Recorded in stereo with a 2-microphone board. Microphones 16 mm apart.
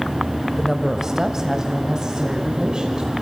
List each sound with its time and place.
0.6 s a woman speaking: 20° right (ahead or behind), 1.2 m; by 3.1 s 50° right (ahead or behind), 2.5 m